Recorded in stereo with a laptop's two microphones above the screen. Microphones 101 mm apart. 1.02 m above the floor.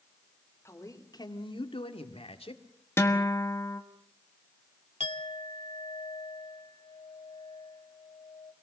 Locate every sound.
0.7 s a man speaking: 25° left (ahead or behind), 2.5 m; by 2.6 s 80° left, 2.5 m
3.0 s a guitar: 25° left (ahead or behind), 1.3 m
5.0 s a clink: 65° left (ahead or behind), 1.4 m